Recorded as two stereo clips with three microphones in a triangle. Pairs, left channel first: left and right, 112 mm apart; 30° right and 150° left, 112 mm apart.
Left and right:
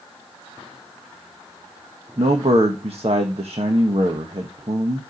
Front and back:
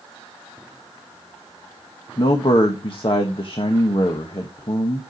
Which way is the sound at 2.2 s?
65° right.